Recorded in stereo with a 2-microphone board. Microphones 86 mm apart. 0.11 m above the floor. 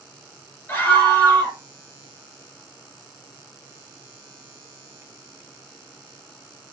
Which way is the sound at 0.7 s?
25° left (ahead or behind).